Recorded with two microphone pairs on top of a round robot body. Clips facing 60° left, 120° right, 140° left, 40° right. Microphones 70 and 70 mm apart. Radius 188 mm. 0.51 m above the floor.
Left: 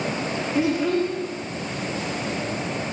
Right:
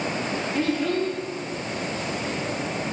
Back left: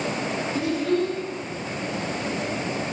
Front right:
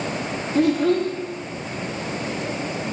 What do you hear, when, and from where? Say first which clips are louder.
0.6 s a child speaking: left 3 dB, front right 6 dB; 15° right, 0.5 m